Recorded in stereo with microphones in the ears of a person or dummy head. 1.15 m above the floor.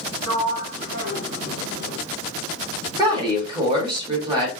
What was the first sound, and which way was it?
A sliding door, 65° right (ahead or behind).